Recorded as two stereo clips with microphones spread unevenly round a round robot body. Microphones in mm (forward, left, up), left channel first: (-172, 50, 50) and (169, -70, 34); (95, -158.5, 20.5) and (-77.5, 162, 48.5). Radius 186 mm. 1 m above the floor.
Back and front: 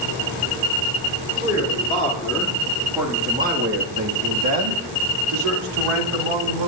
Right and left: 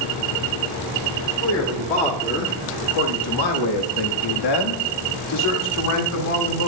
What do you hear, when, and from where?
1.4 s a man speaking: 130° right, 3 m; by 6.7 s 10° right, 4 m